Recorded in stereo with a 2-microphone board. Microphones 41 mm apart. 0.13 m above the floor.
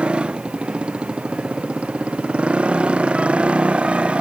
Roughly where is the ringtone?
I don't hear a ringtone.